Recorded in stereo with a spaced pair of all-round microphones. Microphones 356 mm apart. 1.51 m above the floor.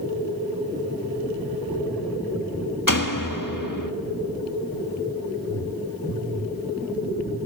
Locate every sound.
2.9 s a door slam: 60° left (ahead or behind), 1.4 m